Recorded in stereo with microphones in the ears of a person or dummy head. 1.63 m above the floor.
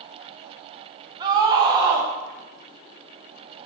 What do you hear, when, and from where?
1.2 s a scream: 30° right (ahead or behind), 0.9 m